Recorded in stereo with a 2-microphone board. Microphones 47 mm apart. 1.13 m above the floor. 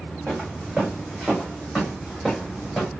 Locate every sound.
0.3 s footsteps: 20° right (ahead or behind), 3 m; by 2.9 s 10° left (ahead or behind), 2.5 m